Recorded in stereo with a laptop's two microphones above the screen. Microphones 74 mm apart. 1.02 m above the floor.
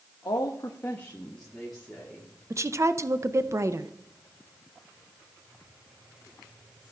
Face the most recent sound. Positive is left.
turn(degrees=-40)  # may be behind; listen again after turning